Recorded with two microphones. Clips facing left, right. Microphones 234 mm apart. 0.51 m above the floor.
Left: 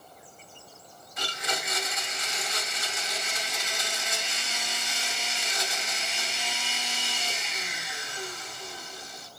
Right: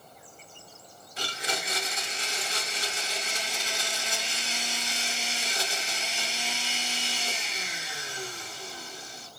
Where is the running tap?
I don't hear a running tap.